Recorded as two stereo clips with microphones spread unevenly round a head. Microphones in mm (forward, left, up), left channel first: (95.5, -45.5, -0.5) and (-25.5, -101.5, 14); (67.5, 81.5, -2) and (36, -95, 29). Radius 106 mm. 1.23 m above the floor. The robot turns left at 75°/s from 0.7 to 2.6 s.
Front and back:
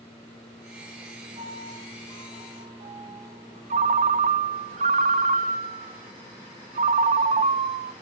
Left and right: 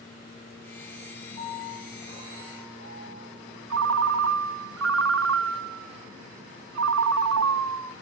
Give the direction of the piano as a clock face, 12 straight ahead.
2 o'clock.